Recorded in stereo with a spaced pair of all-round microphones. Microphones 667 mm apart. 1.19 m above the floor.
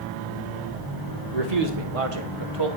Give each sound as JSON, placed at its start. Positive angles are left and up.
{"t": 1.3, "sound": "a man speaking", "side_deg": -70, "distance_m": 1.8}